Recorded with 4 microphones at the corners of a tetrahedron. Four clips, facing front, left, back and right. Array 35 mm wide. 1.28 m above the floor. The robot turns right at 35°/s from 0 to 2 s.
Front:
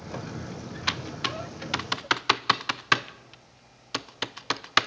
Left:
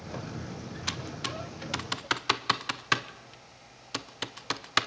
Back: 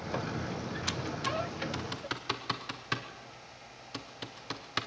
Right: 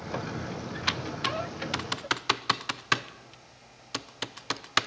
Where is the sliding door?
I don't hear a sliding door.